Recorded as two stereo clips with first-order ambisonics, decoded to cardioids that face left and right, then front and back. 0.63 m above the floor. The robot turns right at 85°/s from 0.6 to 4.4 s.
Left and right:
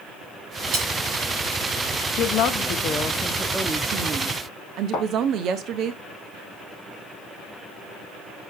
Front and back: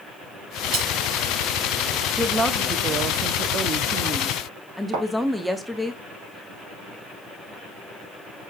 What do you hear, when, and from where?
0.7 s cutlery clinking: 130° right, 3.5 m; by 0.9 s 115° right, 3.5 m
2.2 s a woman speaking: 75° left, 0.8 m; by 5.9 s 95° right, 0.8 m
4.9 s a thud: 145° left, 4 m